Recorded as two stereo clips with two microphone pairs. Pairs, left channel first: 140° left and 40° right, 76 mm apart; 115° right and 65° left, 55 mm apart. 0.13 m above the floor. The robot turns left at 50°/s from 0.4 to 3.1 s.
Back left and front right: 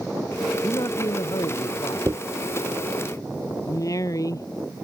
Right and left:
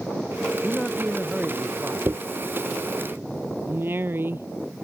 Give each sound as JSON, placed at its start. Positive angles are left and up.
{"t": 0.6, "sound": "a man speaking", "azimuth_deg": 180}
{"t": 2.1, "sound": "a dropped coin", "azimuth_deg": 15}
{"t": 3.7, "sound": "a woman speaking", "azimuth_deg": 105}